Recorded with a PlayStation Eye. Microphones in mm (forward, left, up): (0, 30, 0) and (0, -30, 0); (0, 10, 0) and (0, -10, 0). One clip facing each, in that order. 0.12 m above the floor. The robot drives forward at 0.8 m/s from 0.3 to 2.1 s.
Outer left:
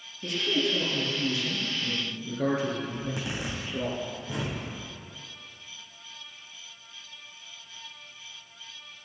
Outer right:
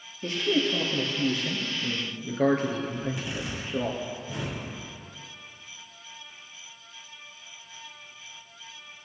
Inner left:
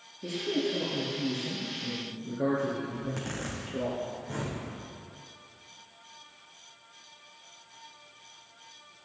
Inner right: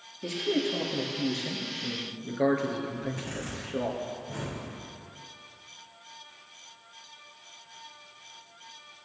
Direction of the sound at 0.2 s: 40° right (ahead or behind).